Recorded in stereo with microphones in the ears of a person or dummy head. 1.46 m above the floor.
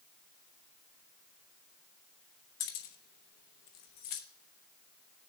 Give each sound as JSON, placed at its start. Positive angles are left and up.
{"t": 2.6, "sound": "keys jangling", "side_deg": 50, "distance_m": 1.0}